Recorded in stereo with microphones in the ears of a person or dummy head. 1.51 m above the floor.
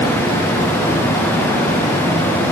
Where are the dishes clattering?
I don't hear dishes clattering.